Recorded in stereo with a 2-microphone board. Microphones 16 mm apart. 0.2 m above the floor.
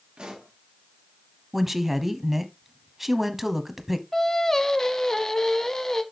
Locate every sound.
0.2 s a pop: 55° right (ahead or behind), 3 m
1.5 s a woman speaking: 10° right (ahead or behind), 1.0 m
4.1 s singing: 30° left (ahead or behind), 1.0 m